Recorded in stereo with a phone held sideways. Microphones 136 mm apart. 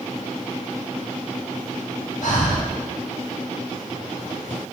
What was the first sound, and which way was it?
Breathing, 65° left (ahead or behind).